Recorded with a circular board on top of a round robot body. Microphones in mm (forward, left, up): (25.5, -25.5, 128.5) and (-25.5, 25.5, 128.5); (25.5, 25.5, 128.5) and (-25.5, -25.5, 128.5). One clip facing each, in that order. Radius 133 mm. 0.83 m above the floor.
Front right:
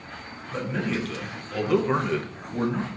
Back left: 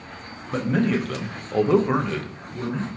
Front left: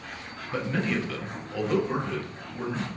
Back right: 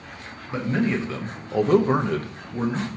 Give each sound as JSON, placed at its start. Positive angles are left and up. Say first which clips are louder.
{"t": 0.5, "sound": "a man speaking", "louder": "back left 6 dB, back right 4 dB", "azimuth_deg": 155, "distance_m": 1.2}